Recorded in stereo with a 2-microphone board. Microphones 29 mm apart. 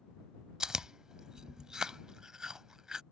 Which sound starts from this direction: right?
Chewing, at 0.6 s.